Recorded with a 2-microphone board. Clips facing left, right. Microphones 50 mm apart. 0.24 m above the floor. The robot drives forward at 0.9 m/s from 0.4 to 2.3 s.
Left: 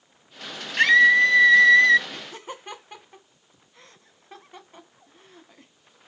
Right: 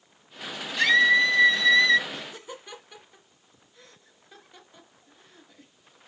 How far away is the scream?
About 1.5 m.